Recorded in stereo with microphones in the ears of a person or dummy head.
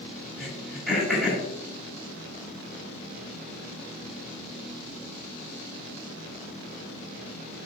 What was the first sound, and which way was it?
Throat clearing, 5° right (ahead or behind).